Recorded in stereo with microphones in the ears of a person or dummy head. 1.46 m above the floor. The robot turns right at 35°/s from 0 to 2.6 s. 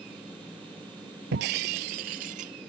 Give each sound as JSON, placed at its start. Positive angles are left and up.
{"t": 1.3, "sound": "breaking glass", "azimuth_deg": -100}